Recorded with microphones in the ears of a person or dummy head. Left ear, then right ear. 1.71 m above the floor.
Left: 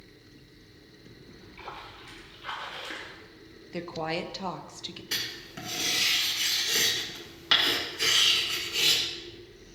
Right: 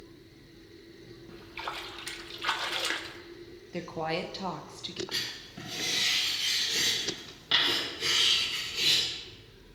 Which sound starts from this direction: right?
A splash, at 1.3 s.